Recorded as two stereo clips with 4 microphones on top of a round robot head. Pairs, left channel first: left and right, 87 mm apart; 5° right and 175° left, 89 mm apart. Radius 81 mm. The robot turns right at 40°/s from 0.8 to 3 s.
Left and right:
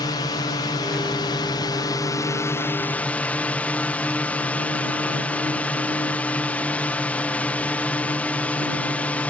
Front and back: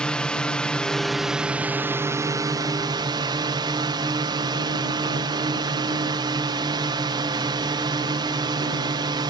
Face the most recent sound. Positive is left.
turn(degrees=160)